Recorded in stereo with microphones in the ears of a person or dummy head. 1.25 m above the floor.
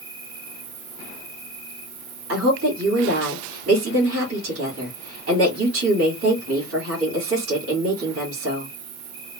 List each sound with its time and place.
0.0 s an insect: 80° right, 2 m
2.3 s a woman speaking: 80° right, 2 m